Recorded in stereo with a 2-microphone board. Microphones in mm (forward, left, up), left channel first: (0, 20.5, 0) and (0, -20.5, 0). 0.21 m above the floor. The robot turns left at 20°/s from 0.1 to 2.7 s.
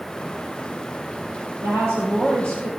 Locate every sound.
1.6 s a woman speaking: 80° right, 4.5 m; by 2.7 s 65° right (ahead or behind), 4.5 m